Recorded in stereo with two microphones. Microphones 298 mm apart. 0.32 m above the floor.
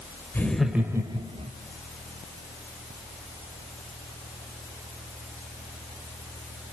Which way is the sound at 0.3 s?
5° left (ahead or behind).